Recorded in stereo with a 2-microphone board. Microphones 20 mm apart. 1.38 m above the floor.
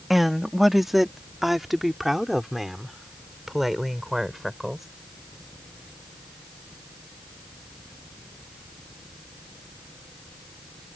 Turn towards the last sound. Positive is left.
turn(degrees=-10)  # may be behind; listen again after turning